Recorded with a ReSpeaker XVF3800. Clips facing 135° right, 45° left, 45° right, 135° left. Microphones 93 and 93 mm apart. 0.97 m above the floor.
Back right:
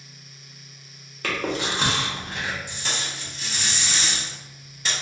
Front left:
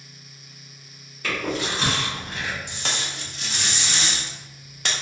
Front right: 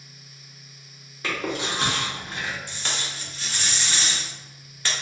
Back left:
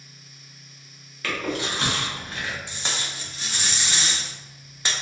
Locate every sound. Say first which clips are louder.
1.2 s chewing: even, even; 110° right, 1.2 m
2.7 s tape being pulled: front left 1 dB, even; 65° left, 0.8 m